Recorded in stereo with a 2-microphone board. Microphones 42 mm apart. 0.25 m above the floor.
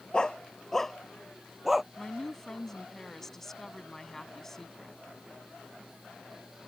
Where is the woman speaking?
10° left (ahead or behind).